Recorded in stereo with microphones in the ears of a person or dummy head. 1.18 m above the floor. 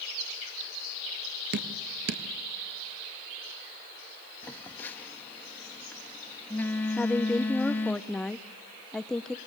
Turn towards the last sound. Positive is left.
turn(degrees=10)  # may be behind; listen again after turning